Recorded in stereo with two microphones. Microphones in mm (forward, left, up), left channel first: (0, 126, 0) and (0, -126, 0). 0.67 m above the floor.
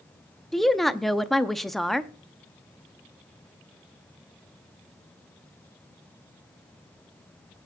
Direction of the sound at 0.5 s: Centre (ahead or behind).